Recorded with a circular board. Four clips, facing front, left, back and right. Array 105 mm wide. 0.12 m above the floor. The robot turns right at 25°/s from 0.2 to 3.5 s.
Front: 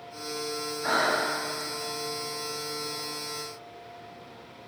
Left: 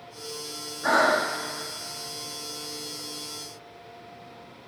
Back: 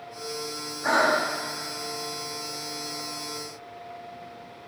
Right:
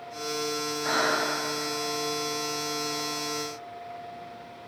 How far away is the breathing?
About 4.5 m.